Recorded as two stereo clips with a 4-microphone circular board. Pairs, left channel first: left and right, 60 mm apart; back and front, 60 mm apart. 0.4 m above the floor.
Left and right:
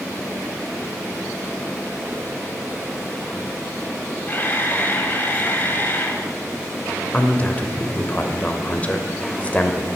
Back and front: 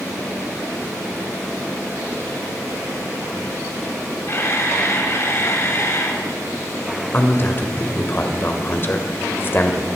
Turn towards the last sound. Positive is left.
turn(degrees=145)